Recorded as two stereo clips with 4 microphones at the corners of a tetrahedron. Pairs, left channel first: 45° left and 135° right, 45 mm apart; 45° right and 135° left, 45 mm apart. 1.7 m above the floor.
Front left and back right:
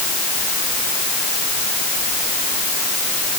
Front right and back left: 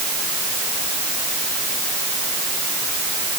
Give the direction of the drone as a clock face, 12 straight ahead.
I don't hear a drone.